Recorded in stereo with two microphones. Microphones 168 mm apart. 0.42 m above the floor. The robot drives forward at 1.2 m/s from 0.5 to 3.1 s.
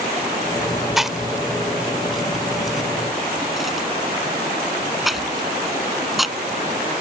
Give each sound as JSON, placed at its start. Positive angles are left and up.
{"t": 1.0, "sound": "chewing", "side_deg": 0}